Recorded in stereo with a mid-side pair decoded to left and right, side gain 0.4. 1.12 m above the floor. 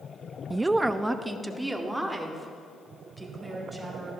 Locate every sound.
0.5 s a woman speaking: 25° right, 0.5 m; by 4.1 s straight ahead, 5.5 m